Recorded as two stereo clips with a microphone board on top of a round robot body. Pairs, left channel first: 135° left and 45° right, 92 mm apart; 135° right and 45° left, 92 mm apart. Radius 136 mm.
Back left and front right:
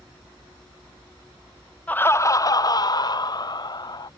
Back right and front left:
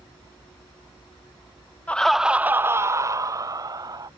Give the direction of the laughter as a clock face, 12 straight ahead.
6 o'clock.